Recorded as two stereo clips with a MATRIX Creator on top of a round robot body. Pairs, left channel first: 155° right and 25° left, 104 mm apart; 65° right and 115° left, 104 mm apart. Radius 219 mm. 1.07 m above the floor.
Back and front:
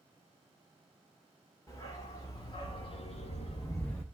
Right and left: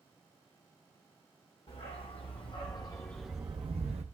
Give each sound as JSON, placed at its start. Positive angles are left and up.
{"t": 1.7, "sound": "a dog barking", "azimuth_deg": -100, "distance_m": 2.0}